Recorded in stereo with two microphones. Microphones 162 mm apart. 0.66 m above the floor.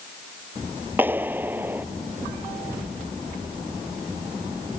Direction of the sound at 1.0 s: 10° right (ahead or behind).